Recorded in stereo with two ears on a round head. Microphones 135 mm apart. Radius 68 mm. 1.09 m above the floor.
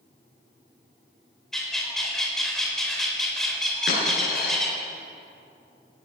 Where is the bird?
5° left (ahead or behind), 4.5 m.